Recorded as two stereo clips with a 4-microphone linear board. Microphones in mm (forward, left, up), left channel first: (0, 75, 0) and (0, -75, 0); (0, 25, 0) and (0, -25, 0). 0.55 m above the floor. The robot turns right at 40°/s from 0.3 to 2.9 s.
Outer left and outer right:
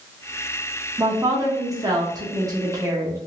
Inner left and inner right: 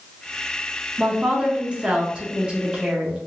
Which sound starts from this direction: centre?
A woman speaking, at 1.0 s.